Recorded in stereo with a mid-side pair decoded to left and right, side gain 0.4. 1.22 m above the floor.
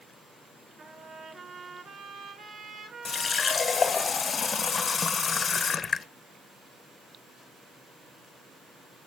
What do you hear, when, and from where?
0.8 s a trumpet: 60° right, 4 m
3.0 s a running tap: 45° left, 0.5 m